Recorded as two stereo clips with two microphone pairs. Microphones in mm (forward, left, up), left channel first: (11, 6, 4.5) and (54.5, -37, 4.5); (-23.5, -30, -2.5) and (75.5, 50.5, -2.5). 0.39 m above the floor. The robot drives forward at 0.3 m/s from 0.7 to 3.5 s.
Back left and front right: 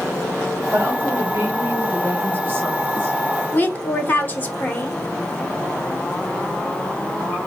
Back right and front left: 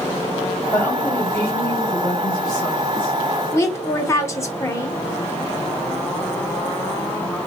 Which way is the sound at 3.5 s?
170° left.